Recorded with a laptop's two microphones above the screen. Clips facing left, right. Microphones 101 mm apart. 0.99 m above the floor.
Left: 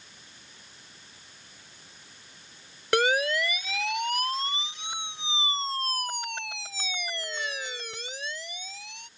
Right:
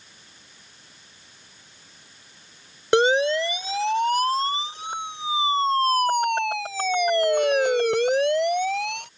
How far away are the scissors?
I don't hear scissors.